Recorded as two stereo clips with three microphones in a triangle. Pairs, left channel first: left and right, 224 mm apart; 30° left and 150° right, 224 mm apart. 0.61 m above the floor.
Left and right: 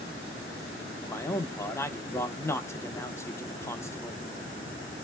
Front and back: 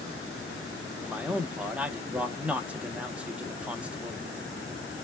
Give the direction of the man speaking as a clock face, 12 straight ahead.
7 o'clock.